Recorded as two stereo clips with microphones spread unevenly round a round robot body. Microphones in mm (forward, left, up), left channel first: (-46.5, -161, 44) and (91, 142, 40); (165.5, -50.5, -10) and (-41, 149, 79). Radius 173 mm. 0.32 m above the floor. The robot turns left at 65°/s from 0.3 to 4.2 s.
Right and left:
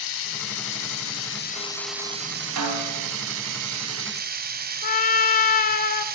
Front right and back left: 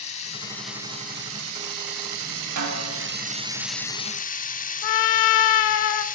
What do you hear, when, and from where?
0.0 s running water: 100° right, 1.5 m; by 6.1 s 5° left, 1.5 m
2.6 s a snare drum: 105° left, 3 m; by 3.1 s 70° left, 3 m
4.8 s a trumpet: 45° right, 0.8 m